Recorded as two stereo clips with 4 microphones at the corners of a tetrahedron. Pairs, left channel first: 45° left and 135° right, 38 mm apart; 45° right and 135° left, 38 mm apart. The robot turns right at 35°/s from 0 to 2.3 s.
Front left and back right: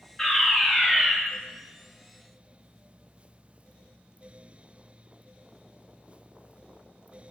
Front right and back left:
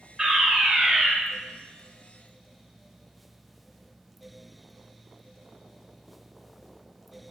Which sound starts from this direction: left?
A fire alarm, at 0.2 s.